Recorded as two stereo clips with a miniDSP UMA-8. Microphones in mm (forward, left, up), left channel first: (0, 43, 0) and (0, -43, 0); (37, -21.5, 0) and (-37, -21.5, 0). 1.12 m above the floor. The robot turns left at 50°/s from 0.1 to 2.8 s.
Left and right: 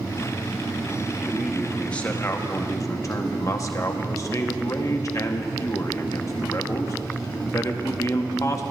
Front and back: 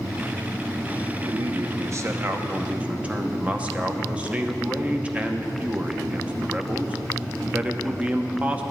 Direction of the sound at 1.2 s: 165° right.